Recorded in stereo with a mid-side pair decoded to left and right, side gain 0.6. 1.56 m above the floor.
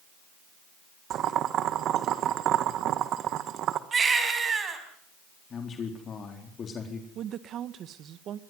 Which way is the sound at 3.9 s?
30° right.